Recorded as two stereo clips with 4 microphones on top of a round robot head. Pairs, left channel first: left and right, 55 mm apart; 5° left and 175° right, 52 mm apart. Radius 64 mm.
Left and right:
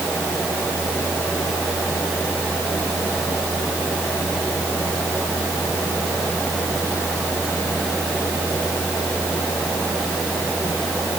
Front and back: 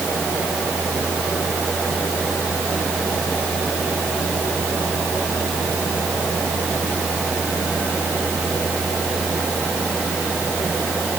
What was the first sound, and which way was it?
Only background noise.